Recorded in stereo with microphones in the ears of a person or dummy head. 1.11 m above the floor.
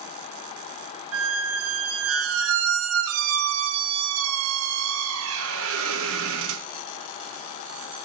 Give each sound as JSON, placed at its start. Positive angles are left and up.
{"t": 1.1, "sound": "a squeak", "side_deg": -75, "distance_m": 0.6}